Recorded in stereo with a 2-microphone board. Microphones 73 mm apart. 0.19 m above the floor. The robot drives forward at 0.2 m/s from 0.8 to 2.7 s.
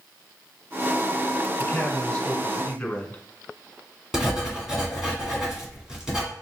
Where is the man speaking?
20° left (ahead or behind), 1.4 m.